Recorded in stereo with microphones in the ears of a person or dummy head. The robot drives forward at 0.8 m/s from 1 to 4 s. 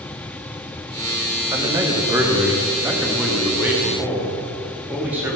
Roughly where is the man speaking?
Centre.